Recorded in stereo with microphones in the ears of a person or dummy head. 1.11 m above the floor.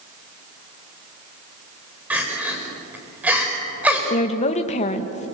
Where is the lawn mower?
I don't hear a lawn mower.